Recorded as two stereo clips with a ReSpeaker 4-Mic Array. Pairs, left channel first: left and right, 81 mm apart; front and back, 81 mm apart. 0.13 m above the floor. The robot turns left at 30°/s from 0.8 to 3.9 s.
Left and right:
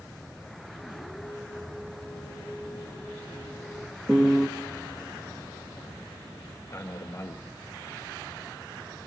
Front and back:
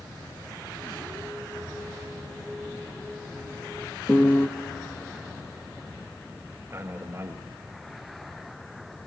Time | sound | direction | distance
4.1 | a piano | 15° right | 0.9 m
6.7 | a man speaking | 130° left | 1.6 m